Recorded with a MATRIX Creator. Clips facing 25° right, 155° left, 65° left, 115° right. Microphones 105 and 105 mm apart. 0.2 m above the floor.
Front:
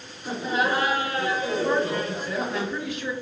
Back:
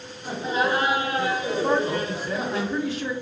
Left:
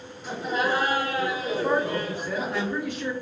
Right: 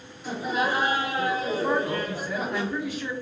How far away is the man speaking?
About 1.2 m.